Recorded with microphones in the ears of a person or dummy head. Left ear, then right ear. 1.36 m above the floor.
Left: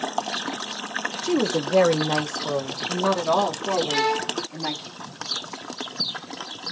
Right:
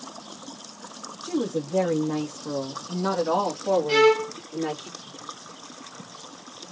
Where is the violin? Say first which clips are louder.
Right 4 dB; 50° right (ahead or behind), 1.9 m.